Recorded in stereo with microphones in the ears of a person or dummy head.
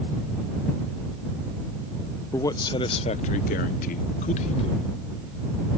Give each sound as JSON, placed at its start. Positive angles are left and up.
{"t": 2.3, "sound": "a man speaking", "side_deg": 15}